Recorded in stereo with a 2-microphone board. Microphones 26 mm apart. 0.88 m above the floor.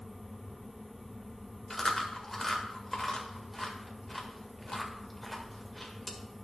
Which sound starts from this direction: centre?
Chewing, at 1.7 s.